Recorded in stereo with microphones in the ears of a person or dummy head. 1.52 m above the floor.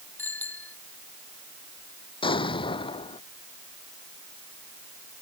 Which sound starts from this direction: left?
An explosion, at 2.2 s.